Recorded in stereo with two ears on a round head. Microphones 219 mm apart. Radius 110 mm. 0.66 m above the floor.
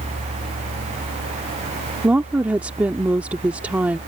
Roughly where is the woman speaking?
Centre.